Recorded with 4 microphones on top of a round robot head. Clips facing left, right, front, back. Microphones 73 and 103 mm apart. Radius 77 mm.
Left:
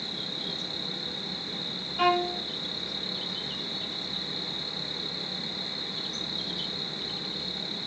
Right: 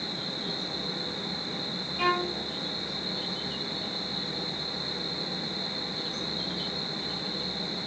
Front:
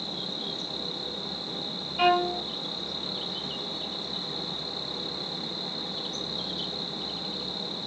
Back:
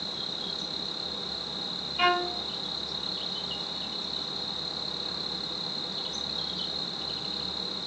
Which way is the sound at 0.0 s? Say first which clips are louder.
Right 3 dB, front 3 dB; 75° left.